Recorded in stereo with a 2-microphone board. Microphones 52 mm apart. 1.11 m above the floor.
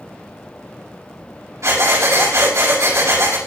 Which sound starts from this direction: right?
Breathing, at 1.6 s.